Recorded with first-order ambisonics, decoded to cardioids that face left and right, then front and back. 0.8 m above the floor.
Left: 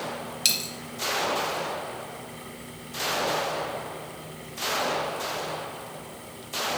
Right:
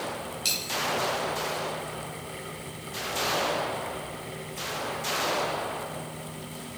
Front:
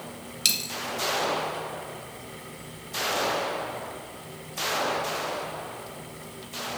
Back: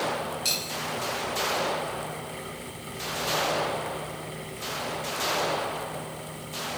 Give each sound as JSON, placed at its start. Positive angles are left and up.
{"t": 0.5, "sound": "a dropped coin", "azimuth_deg": 35, "distance_m": 0.9}